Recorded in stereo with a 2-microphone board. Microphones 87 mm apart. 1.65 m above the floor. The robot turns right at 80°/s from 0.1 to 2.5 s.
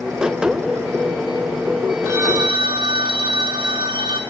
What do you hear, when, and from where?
2.0 s a phone ringing: 150° right, 3.5 m; by 4.2 s 115° right, 3.5 m